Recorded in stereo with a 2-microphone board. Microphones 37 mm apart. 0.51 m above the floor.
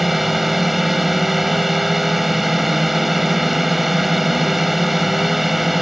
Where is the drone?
5° right (ahead or behind).